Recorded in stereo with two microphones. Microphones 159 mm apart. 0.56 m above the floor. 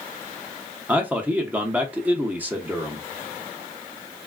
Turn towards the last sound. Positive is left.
turn(degrees=-10)  # may be behind; listen again after turning